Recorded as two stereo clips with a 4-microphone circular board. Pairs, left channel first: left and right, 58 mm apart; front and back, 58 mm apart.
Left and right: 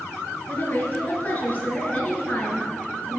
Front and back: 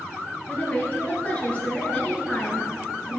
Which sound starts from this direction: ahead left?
A woman speaking, at 0.5 s.